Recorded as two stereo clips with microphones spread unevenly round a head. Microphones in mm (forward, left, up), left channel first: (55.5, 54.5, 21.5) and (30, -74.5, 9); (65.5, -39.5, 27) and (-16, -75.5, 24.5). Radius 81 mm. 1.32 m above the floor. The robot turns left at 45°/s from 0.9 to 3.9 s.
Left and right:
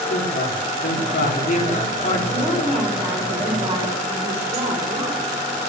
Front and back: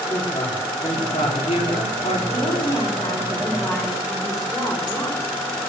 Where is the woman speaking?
10° left, 4 m; by 5.3 s 65° right, 4 m.